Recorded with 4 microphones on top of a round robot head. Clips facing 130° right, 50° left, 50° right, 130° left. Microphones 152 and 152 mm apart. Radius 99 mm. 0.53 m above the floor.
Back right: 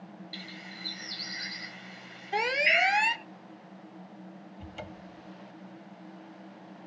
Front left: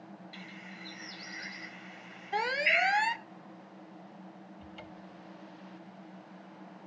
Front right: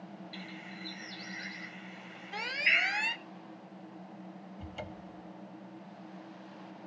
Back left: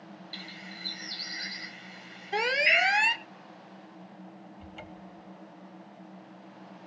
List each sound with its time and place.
0.3 s a bird: straight behind
2.3 s an alarm: 160° left
4.6 s a cupboard door: 95° right